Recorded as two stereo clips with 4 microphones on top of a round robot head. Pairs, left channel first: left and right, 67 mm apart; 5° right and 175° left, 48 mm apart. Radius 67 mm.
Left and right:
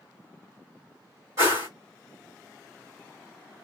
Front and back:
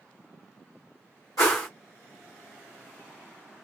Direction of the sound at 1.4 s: 35° right.